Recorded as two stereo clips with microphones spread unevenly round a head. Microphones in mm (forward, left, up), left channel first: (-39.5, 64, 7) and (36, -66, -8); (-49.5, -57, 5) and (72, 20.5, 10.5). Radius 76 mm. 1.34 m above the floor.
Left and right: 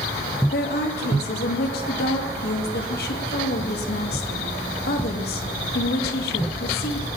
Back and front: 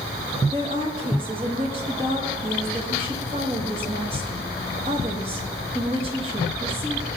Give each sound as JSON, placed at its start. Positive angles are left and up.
{"t": 0.5, "sound": "a woman speaking", "azimuth_deg": 90, "distance_m": 1.8}